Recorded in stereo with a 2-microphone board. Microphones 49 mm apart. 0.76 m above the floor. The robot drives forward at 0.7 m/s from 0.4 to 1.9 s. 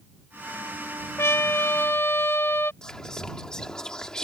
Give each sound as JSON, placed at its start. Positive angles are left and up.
{"t": 1.2, "sound": "a trumpet", "side_deg": 60}
{"t": 2.8, "sound": "whispering", "side_deg": 15}